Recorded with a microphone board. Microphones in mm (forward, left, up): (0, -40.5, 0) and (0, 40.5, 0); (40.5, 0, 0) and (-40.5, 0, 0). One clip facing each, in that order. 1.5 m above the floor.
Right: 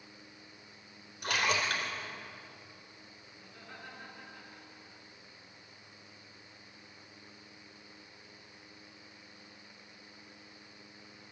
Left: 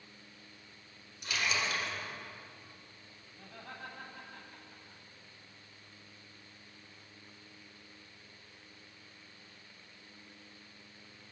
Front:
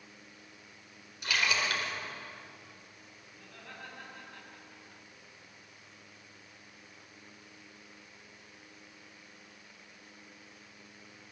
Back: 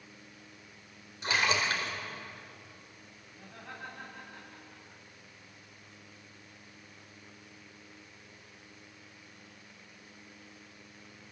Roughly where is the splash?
Behind right.